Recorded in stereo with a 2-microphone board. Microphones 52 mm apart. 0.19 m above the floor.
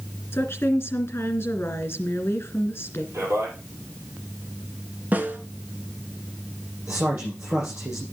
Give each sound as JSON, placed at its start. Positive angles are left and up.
{"t": 0.3, "sound": "a woman speaking", "side_deg": 50, "distance_m": 2.5}
{"t": 3.1, "sound": "a man speaking", "side_deg": -60, "distance_m": 5.0}
{"t": 5.1, "sound": "a snare drum", "side_deg": -35, "distance_m": 1.6}
{"t": 6.9, "sound": "a man speaking", "side_deg": -40, "distance_m": 6.5}